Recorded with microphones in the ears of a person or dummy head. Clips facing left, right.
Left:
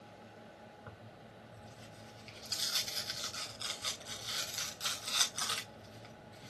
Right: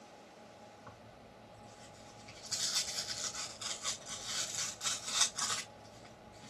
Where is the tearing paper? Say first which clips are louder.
Left 1 dB; 40° left (ahead or behind), 3.5 m.